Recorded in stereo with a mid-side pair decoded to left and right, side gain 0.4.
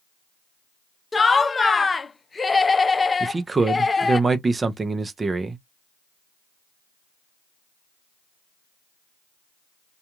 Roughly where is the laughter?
Ahead left.